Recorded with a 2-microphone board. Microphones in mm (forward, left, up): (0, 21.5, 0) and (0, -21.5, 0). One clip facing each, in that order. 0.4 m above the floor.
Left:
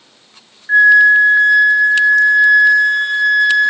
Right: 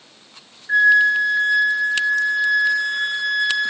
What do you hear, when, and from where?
0.7 s a flute: 35° left (ahead or behind), 1.1 m